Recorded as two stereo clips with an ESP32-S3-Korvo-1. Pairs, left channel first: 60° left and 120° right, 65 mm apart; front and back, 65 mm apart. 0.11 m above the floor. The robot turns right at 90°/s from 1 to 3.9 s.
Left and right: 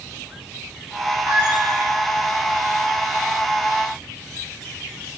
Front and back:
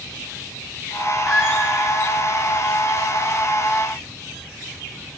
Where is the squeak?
100° right, 2.5 m; by 1.7 s 65° right, 2.5 m.